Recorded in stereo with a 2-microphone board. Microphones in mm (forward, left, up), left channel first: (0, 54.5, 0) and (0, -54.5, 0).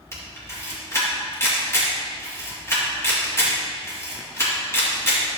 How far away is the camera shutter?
About 2.5 m.